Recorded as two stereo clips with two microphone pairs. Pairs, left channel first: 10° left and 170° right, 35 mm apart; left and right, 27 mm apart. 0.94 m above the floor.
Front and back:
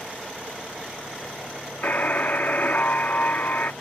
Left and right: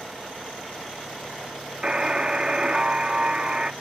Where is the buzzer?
30° right.